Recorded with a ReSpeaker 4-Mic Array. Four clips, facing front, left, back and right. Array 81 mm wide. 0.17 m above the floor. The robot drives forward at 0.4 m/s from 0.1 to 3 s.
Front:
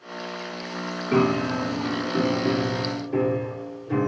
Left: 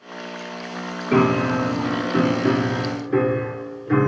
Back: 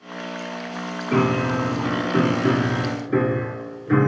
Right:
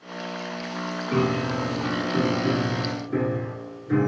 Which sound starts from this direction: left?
A piano, at 1.1 s.